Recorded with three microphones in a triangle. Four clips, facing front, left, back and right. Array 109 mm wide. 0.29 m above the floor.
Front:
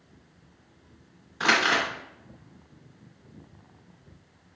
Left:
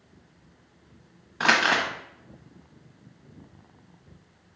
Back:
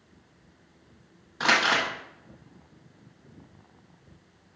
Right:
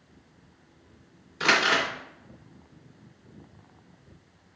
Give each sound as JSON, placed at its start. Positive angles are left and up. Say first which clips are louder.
{"t": 1.4, "sound": "crumpling", "louder": "left 1 dB, even", "azimuth_deg": 105, "distance_m": 1.1}